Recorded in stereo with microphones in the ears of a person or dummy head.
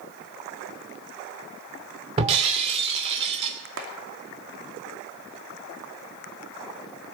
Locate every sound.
2.2 s breaking glass: 30° right (ahead or behind), 2.5 m
3.8 s a clap: 70° right (ahead or behind), 2.5 m